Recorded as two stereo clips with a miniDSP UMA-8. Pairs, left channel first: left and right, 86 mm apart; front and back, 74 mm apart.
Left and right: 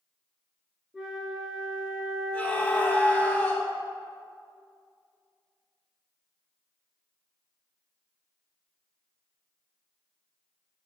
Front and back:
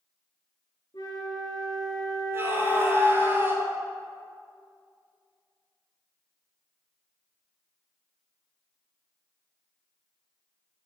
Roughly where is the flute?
Ahead.